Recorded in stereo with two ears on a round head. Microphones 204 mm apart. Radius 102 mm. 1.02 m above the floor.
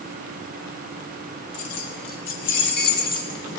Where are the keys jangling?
75° left (ahead or behind), 1.5 m; by 3.4 s 35° left (ahead or behind), 1.6 m.